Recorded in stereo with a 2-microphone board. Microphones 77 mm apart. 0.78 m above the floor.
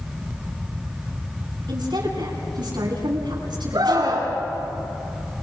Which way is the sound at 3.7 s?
70° right (ahead or behind).